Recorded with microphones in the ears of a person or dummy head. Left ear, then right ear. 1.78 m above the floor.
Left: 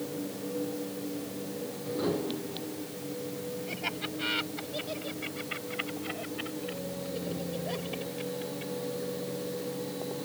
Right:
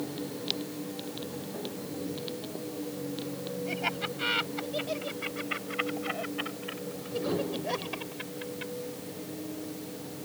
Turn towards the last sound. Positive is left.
turn(degrees=-55)  # may be behind; listen again after turning